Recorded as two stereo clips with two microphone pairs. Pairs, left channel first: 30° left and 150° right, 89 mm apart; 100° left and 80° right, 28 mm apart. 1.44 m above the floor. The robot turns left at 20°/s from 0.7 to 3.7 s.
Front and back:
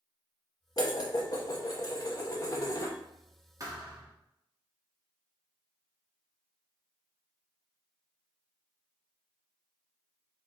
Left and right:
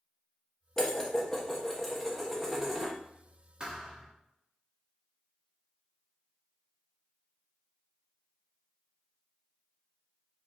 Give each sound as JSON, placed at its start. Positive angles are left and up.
{"t": 0.8, "sound": "dishes clattering", "azimuth_deg": 40, "distance_m": 0.9}
{"t": 3.6, "sound": "a thud", "azimuth_deg": -120, "distance_m": 1.1}